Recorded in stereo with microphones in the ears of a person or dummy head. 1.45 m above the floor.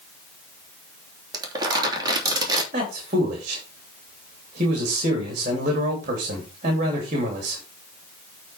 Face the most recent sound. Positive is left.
turn(degrees=-45)  # may be behind; listen again after turning